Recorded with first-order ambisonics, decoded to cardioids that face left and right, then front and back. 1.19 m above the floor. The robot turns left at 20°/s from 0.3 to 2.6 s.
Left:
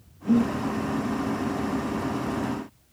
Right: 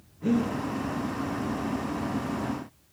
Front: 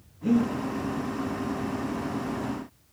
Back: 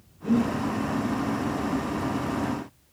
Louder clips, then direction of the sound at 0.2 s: Left 3 dB, even; 70° right.